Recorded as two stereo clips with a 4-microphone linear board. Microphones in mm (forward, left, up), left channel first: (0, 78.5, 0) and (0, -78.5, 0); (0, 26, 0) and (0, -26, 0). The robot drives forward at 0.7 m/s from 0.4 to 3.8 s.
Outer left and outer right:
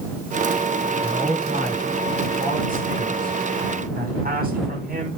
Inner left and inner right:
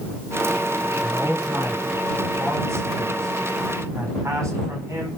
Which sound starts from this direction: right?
A man speaking, at 1.0 s.